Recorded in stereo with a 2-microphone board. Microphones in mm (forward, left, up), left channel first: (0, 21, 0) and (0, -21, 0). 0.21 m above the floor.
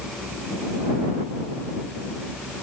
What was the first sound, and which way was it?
Only background noise.